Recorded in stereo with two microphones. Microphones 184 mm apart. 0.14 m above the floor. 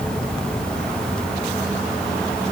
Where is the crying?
No crying in this recording.